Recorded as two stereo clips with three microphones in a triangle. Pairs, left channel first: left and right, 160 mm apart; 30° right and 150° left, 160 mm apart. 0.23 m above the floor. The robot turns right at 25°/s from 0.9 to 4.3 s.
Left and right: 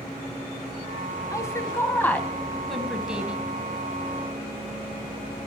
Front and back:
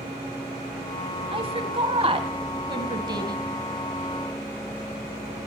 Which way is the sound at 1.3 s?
145° left.